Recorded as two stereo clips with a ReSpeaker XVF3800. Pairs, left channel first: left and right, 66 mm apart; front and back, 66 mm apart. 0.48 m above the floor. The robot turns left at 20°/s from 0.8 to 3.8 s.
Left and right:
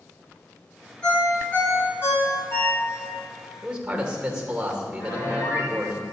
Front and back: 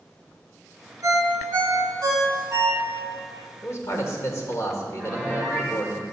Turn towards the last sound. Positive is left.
turn(degrees=100)